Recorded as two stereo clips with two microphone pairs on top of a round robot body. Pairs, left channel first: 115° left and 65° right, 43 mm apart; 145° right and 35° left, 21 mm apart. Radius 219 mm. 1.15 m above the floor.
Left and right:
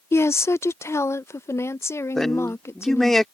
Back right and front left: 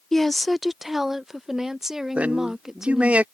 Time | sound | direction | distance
0.1 | a woman speaking | 135° left | ?
2.1 | a man speaking | 35° left | ?